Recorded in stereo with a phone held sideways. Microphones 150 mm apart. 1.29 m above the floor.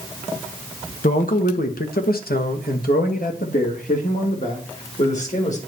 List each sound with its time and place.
1.0 s a man speaking: 65° left (ahead or behind), 1.1 m; by 5.6 s 50° left (ahead or behind), 2.5 m